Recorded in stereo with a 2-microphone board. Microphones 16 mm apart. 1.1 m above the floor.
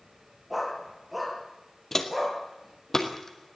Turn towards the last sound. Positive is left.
turn(degrees=45)  # may be behind; listen again after turning